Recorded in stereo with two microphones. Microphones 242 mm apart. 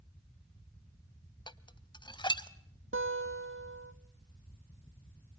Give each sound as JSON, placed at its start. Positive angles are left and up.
{"t": 1.5, "sound": "dishes clattering", "side_deg": 20, "distance_m": 0.7}
{"t": 2.9, "sound": "a guitar", "side_deg": -55, "distance_m": 2.5}